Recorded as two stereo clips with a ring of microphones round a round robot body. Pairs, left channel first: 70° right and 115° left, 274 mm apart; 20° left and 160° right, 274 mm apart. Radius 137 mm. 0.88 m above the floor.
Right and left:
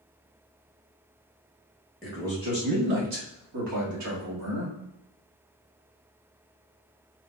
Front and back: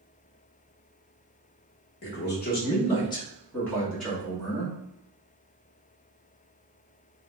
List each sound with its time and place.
2.0 s a man speaking: 20° left, 0.9 m; by 4.8 s 115° left, 2 m